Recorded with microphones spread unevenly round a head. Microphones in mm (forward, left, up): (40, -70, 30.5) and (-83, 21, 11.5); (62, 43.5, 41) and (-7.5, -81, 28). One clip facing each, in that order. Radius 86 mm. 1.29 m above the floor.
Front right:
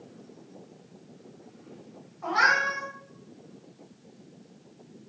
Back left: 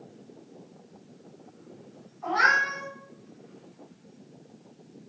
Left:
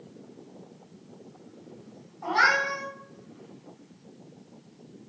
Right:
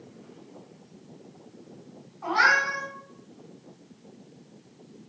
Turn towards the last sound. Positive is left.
turn(degrees=-5)